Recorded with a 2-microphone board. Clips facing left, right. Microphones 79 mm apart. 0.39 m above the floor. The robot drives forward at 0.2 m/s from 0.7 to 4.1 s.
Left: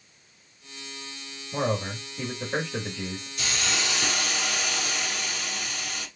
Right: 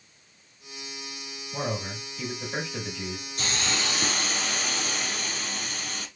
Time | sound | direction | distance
1.5 | a man speaking | 45° left (ahead or behind) | 1.7 m
3.4 | a hiss | 45° right (ahead or behind) | 2.5 m